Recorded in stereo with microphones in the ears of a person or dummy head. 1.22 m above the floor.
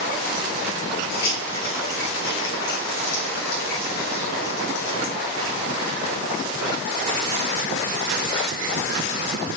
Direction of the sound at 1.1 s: 60° left (ahead or behind).